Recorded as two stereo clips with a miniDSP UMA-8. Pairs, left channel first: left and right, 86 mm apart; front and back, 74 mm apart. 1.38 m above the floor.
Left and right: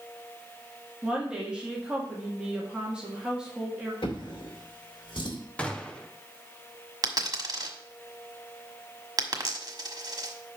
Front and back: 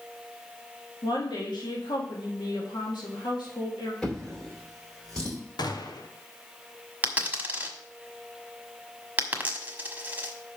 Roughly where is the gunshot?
Ahead.